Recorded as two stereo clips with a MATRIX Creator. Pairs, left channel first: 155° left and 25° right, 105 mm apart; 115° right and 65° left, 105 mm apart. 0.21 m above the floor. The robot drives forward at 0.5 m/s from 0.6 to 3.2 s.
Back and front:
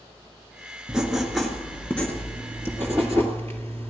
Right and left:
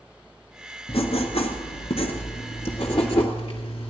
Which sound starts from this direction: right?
Writing, at 0.9 s.